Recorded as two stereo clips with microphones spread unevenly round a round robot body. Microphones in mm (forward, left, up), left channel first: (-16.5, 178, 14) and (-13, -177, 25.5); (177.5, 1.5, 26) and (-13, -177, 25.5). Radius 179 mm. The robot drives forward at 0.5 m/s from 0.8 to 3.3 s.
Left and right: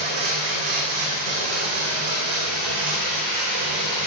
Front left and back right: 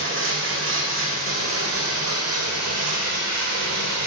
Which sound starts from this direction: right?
Running water, at 0.0 s.